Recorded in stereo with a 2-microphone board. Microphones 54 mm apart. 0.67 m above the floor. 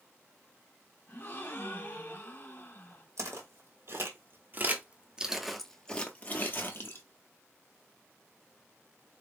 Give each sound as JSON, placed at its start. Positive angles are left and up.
{"t": 1.1, "sound": "a gasp", "side_deg": 55, "distance_m": 1.5}
{"t": 3.2, "sound": "footsteps", "side_deg": -65, "distance_m": 1.4}